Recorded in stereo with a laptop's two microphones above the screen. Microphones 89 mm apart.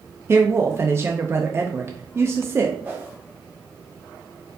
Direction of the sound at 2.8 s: 20° right (ahead or behind).